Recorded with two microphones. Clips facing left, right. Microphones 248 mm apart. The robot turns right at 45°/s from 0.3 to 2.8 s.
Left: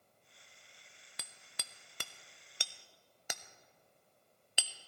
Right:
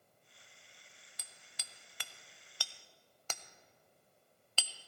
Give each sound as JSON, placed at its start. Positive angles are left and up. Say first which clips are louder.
{"t": 1.2, "sound": "hammering", "louder": "left 8 dB", "side_deg": 75, "distance_m": 0.5}